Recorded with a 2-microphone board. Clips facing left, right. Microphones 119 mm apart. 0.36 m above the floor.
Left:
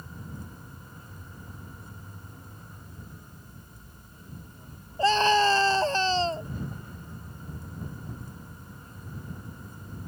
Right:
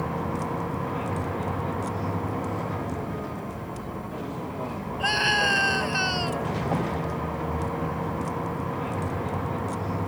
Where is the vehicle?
80° right.